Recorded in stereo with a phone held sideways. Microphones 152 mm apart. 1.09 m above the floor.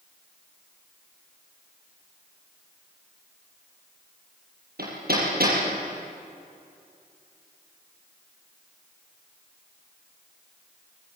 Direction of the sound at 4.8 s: 75° right (ahead or behind).